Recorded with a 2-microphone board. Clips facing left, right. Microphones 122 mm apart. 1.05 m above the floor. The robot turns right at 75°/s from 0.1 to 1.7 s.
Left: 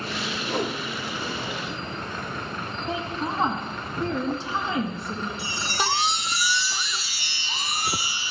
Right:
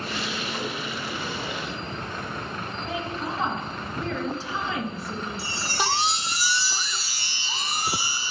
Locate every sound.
0.4 s a whoosh: 70° left (ahead or behind), 1.2 m; by 0.8 s 45° left (ahead or behind), 1.2 m
2.9 s a woman speaking: 25° left (ahead or behind), 2.0 m
5.4 s a chime: 40° right (ahead or behind), 1.8 m